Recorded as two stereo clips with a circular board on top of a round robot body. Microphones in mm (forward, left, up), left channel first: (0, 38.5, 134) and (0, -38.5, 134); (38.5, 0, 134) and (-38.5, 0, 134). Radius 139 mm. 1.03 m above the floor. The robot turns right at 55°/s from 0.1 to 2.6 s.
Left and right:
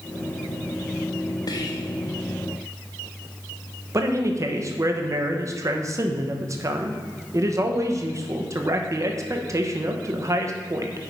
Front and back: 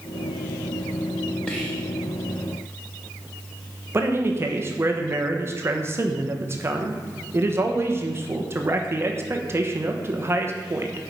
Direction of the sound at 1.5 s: 75° left.